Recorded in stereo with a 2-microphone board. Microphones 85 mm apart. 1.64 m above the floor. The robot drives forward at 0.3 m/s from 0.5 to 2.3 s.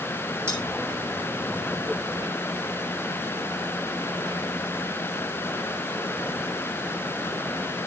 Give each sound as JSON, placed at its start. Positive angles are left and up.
{"t": 0.5, "sound": "cutlery clinking", "side_deg": -30, "distance_m": 6.0}